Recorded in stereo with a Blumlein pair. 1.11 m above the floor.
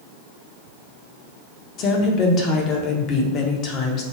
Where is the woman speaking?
35° left, 0.8 m.